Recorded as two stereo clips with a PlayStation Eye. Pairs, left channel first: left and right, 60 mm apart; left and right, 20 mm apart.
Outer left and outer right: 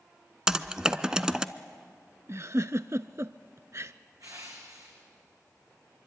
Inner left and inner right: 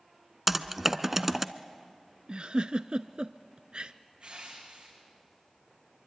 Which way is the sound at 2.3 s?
55° right (ahead or behind).